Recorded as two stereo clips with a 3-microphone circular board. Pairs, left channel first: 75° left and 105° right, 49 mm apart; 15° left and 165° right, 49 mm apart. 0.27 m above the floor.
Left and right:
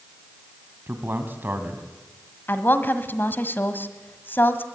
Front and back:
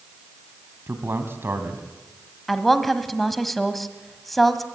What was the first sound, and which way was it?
A man speaking, 145° right.